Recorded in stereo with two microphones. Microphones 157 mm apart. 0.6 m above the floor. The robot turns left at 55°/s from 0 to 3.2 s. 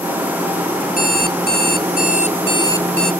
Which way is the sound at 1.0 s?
120° left.